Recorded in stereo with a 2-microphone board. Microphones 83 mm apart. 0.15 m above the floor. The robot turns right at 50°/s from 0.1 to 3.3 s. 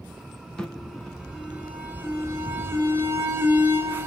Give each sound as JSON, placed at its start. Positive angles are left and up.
{"t": 0.6, "sound": "an alarm", "side_deg": 5, "distance_m": 1.0}